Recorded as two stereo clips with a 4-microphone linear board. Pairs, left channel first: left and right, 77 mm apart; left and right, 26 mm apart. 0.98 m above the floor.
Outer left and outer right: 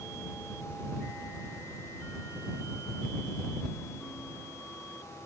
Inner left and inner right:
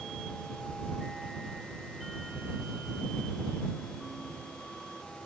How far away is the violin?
No violin in this recording.